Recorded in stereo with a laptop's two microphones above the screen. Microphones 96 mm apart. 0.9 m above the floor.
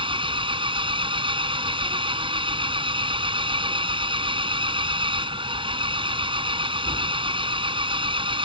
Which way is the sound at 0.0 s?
65° right (ahead or behind).